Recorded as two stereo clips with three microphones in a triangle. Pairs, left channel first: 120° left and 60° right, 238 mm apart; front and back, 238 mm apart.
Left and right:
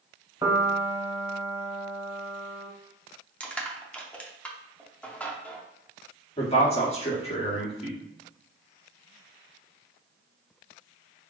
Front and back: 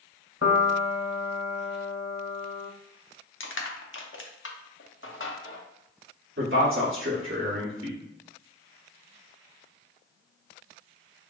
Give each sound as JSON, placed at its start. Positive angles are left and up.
{"t": 0.4, "sound": "a piano", "azimuth_deg": 10, "distance_m": 0.6}
{"t": 3.4, "sound": "crushing", "azimuth_deg": 35, "distance_m": 0.7}
{"t": 6.4, "sound": "a man speaking", "azimuth_deg": 180, "distance_m": 1.7}